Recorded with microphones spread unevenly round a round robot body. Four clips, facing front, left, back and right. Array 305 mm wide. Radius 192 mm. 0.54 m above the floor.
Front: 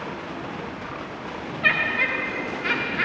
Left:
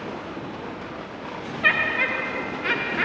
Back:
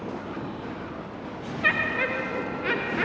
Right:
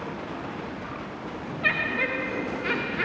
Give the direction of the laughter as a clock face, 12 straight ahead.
6 o'clock.